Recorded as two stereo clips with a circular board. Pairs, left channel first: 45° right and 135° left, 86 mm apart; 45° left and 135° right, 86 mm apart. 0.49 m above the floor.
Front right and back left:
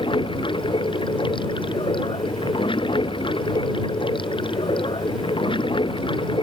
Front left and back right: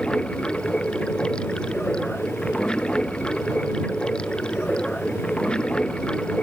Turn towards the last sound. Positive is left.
turn(degrees=-35)